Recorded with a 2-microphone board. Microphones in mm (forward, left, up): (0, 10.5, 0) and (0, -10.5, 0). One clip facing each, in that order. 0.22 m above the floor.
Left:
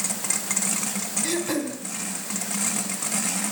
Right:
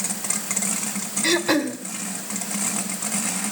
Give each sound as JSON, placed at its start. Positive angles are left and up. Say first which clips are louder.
{"t": 1.2, "sound": "throat clearing", "louder": "right 8 dB", "side_deg": -40, "distance_m": 1.9}